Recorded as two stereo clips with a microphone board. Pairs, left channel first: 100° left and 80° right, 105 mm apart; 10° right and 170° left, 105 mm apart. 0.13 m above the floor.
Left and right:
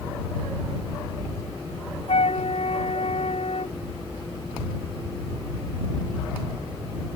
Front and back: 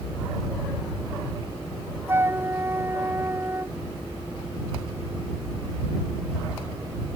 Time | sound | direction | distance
2.1 | a flute | 100° left | ?